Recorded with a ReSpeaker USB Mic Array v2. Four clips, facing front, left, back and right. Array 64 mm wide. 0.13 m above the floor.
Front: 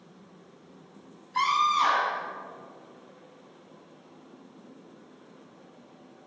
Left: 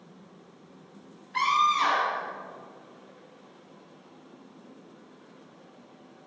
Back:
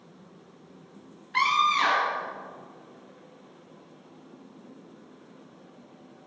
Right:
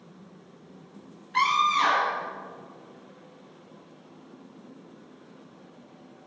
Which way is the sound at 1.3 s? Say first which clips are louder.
Right 1 dB, back 1 dB; 170° right.